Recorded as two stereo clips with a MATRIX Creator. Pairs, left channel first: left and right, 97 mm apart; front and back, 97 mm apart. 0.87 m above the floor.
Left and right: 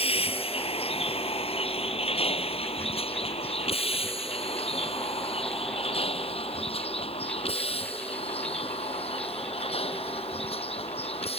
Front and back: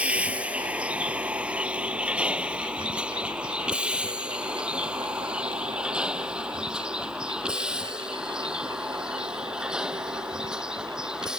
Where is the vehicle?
100° left; by 11.4 s 95° left.